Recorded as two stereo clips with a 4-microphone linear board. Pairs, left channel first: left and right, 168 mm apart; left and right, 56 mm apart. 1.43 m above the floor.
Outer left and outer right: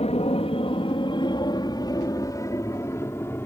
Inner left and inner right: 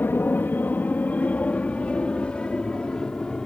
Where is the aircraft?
40° left (ahead or behind); by 3.5 s 10° left (ahead or behind).